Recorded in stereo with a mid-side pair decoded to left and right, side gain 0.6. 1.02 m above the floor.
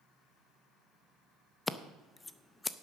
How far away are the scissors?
About 0.7 m.